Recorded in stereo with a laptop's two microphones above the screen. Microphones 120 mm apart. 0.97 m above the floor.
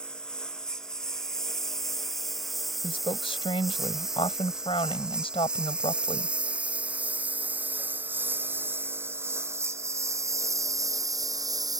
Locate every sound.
0.0 s a lawn mower: 5° left (ahead or behind); by 11.8 s 35° right (ahead or behind)
2.8 s a woman speaking: 50° left (ahead or behind)